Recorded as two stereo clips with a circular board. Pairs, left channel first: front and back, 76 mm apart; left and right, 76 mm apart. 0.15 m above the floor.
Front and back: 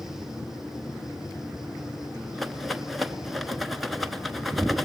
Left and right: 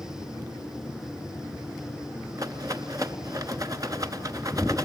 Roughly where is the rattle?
Right.